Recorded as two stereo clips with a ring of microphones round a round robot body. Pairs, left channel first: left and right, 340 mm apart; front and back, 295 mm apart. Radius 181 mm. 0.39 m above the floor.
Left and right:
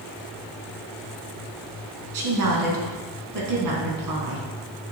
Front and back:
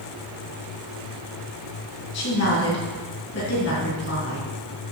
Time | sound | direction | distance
2.1 | a woman speaking | 60° right | 4 m